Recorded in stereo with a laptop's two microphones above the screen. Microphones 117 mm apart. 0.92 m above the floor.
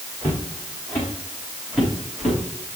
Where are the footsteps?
20° left (ahead or behind), 5 m; by 2.4 s centre (ahead or behind), 7 m.